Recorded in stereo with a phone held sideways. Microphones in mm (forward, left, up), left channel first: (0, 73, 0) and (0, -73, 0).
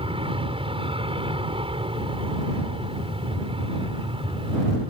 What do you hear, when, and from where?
0.0 s an aircraft: 40° right (ahead or behind)